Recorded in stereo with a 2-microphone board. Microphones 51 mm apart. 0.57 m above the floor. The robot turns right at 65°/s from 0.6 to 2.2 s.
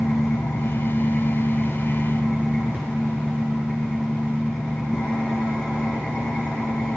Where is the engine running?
100° left, 2 m; by 7.0 s 155° right, 2 m.